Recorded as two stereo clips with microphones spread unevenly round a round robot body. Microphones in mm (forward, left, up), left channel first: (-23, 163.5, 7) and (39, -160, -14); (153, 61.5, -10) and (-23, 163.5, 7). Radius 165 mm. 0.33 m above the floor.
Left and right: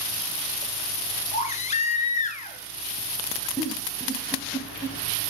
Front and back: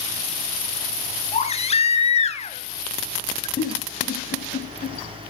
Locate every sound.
1.3 s a baby crying: 30° left, 1.7 m
3.6 s a giggle: 15° left, 2.5 m